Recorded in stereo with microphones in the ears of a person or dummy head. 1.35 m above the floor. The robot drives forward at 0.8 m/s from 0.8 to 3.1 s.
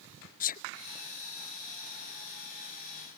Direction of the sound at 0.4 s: 45° left (ahead or behind).